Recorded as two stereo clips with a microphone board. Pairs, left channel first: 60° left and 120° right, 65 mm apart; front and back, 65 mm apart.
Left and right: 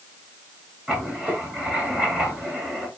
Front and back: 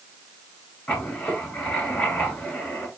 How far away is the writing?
About 2 m.